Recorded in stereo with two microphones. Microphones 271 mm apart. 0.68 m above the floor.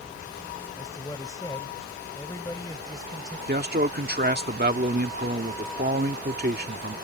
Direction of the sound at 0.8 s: 15° left (ahead or behind).